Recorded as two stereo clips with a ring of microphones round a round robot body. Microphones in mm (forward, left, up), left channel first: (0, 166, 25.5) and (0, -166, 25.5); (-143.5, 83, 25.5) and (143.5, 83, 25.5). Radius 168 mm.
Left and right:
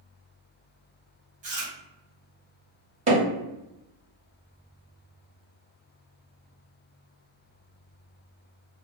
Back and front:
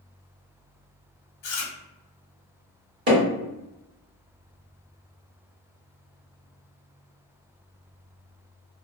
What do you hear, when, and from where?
1.4 s chewing: 155° right, 0.9 m
3.1 s hammering: 30° right, 1.3 m